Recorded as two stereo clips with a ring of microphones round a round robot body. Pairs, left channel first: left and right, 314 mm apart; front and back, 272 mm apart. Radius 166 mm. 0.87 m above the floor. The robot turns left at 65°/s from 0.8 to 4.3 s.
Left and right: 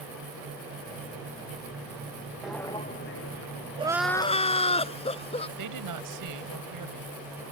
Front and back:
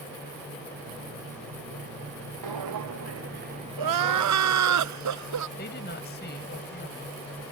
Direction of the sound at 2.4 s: 175° right.